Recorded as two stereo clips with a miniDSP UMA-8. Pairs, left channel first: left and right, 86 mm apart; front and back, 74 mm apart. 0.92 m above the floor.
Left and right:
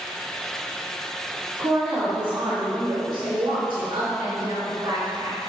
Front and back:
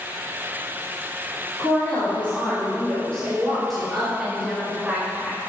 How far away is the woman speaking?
About 2 m.